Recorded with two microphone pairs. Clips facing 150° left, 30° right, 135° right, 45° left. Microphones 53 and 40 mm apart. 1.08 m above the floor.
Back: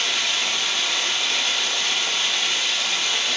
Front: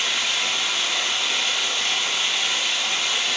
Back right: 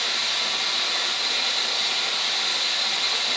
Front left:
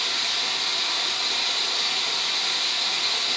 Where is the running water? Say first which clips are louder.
Even, back right 1 dB; 105° right, 3 m.